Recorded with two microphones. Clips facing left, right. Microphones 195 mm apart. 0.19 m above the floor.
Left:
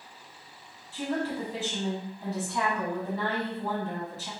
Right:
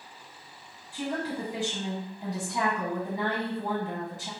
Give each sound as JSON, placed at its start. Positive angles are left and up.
{"t": 0.9, "sound": "a woman speaking", "side_deg": -15, "distance_m": 1.3}